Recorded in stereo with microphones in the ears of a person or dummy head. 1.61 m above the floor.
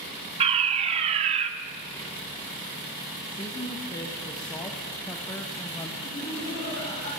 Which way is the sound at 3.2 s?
20° left (ahead or behind).